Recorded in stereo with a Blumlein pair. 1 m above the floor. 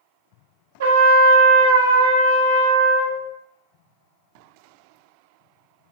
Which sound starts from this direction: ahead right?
A trumpet, at 0.8 s.